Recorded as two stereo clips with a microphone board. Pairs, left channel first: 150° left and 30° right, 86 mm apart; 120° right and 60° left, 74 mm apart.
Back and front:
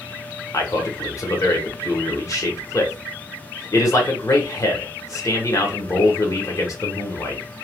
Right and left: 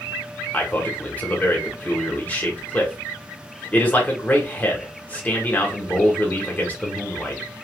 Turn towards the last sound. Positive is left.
turn(degrees=180)